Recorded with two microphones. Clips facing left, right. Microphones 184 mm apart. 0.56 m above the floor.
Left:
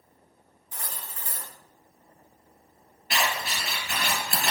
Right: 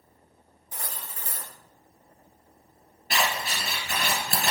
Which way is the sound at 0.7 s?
40° right (ahead or behind).